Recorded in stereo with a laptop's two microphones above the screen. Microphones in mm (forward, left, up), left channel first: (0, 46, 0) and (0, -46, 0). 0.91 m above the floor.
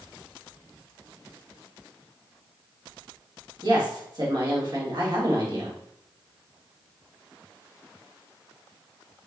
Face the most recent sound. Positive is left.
turn(degrees=-50)  # may be behind; listen again after turning